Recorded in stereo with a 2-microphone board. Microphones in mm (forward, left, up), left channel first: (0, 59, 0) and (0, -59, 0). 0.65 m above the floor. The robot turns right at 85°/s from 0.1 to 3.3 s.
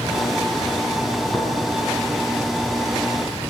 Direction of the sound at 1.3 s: 20° left (ahead or behind).